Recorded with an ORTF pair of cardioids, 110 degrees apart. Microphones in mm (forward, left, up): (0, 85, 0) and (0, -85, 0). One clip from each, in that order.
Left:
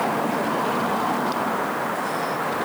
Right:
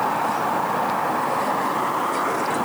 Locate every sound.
Only background noise.